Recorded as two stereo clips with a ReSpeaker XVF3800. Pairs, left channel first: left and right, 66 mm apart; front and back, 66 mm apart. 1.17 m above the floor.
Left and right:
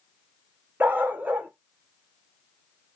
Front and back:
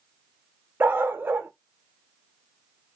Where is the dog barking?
140° right, 0.7 m.